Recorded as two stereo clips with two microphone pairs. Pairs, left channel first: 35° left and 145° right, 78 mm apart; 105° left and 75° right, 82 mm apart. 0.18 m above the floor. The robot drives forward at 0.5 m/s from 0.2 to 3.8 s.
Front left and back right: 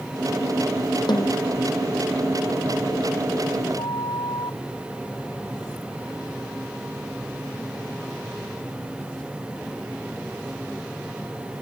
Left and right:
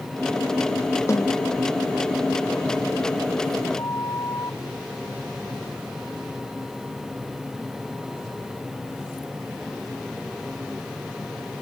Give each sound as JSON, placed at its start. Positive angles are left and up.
{"t": 1.1, "sound": "a snare drum", "azimuth_deg": 55}
{"t": 3.8, "sound": "a flute", "azimuth_deg": 55}